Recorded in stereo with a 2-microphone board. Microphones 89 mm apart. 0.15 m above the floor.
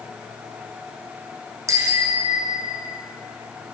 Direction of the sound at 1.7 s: 35° right (ahead or behind).